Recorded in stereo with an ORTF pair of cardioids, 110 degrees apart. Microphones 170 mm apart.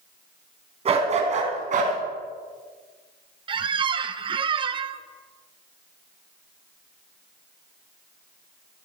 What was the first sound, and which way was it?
A dog barking, 40° right.